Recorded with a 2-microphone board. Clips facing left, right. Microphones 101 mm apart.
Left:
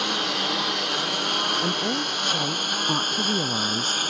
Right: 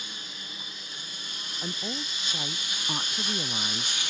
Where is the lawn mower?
80° left; by 4.1 s 50° left (ahead or behind).